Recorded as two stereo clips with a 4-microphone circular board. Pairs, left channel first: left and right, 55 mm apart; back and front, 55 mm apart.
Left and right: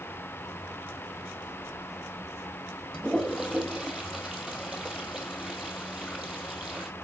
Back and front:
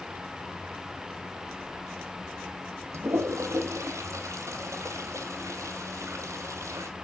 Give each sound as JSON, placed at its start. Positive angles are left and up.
{"t": 2.9, "sound": "a toilet flushing", "azimuth_deg": -10, "distance_m": 1.0}